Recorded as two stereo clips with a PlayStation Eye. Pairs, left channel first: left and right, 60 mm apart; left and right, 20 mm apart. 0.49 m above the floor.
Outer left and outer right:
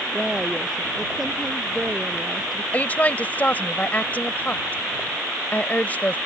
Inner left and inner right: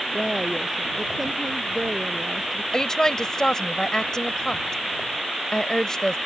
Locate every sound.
0.1 s a woman speaking: 5° right (ahead or behind)
2.7 s a woman speaking: 25° left (ahead or behind)